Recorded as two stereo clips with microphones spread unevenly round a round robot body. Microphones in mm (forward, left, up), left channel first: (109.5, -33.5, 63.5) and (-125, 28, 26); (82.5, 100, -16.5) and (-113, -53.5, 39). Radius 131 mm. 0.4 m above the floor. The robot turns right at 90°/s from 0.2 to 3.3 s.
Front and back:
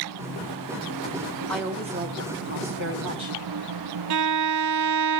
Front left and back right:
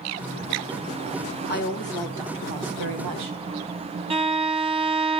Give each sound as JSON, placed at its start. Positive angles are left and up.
{"t": 1.5, "sound": "a woman speaking", "azimuth_deg": 75, "distance_m": 3.0}
{"t": 4.1, "sound": "a violin", "azimuth_deg": 150, "distance_m": 0.6}